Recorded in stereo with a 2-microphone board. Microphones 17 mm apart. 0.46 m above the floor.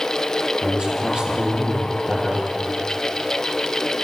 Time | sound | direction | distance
0.6 | a man speaking | 55° right (ahead or behind) | 9.5 m